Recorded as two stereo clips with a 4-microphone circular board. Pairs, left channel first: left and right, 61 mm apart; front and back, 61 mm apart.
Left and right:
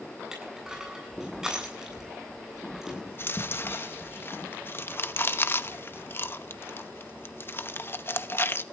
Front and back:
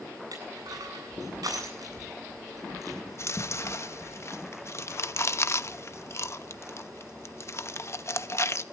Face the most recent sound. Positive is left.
turn(degrees=40)